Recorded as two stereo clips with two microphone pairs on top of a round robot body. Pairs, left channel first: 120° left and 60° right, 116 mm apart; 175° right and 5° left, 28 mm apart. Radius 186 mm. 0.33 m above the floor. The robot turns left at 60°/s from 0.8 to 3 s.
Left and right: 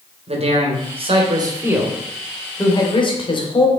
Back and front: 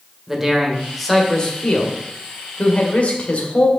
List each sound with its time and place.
0.3 s a man speaking: 75° right, 2.5 m; by 3.7 s 155° left, 2.5 m